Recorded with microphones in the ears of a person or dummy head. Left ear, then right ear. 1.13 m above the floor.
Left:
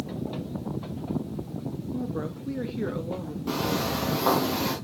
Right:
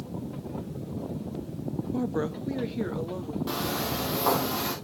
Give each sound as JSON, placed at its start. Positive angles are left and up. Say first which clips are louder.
{"t": 1.9, "sound": "a woman speaking", "louder": "right 4 dB", "side_deg": -40, "distance_m": 0.5}
{"t": 3.5, "sound": "footsteps", "louder": "left 3 dB", "side_deg": -15, "distance_m": 3.5}